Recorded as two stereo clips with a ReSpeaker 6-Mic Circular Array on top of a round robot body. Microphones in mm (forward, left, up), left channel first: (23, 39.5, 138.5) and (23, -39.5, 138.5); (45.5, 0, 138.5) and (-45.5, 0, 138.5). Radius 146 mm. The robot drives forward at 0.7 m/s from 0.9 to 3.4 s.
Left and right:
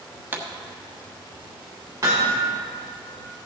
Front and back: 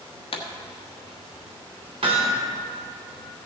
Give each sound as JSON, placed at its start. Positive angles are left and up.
{"t": 0.3, "sound": "a pop", "azimuth_deg": -25, "distance_m": 1.2}
{"t": 2.0, "sound": "hammering", "azimuth_deg": -150, "distance_m": 1.2}